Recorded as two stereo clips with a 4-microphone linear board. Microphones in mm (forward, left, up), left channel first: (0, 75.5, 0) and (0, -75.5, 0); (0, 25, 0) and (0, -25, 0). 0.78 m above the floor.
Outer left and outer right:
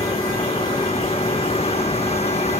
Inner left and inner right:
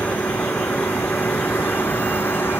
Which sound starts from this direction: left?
A vehicle, at 0.0 s.